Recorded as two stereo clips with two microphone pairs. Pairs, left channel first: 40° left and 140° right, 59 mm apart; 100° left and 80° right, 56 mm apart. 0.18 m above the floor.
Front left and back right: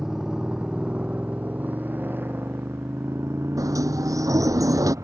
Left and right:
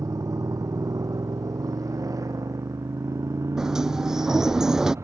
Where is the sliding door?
160° right.